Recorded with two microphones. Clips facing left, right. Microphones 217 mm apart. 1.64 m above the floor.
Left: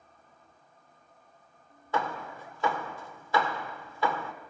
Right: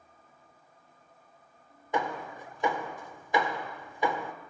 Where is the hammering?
20° right (ahead or behind), 1.6 m.